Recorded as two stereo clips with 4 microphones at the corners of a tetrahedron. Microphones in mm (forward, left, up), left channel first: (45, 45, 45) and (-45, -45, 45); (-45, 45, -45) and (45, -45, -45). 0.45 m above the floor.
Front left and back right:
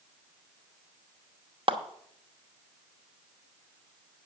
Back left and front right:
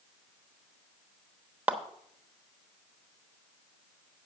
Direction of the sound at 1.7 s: 120° right.